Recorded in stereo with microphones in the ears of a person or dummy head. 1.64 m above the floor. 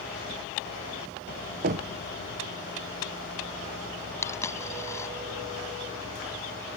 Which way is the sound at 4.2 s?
15° left (ahead or behind).